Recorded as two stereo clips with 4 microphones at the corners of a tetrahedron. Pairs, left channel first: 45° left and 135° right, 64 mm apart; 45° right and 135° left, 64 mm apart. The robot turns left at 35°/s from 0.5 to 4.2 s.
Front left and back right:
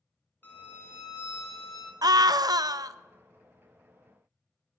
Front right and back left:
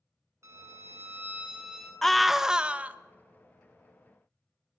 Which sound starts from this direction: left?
A violin, at 0.4 s.